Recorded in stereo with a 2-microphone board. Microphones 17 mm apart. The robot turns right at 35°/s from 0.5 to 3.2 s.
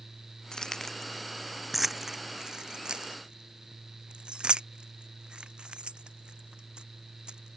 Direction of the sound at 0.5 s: 35° left (ahead or behind).